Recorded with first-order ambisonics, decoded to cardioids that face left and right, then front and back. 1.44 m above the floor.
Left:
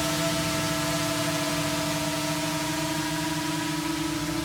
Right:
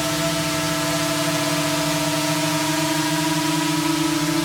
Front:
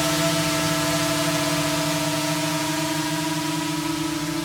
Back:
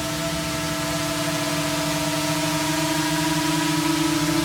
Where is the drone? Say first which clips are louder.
Right 4 dB, front 4 dB; 50° right; by 4.5 s 120° right.